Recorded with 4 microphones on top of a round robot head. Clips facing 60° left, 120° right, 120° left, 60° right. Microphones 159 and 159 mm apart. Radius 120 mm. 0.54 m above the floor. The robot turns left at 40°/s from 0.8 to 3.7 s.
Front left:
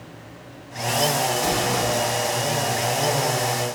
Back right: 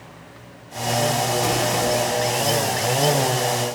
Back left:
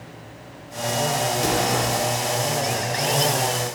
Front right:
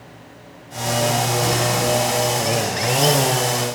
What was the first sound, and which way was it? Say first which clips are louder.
An explosion: back right 2 dB, front right 2 dB; 160° left.